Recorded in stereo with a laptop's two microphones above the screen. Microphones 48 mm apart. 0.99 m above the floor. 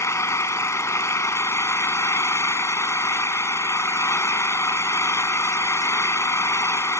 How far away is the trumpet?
No trumpet in this recording.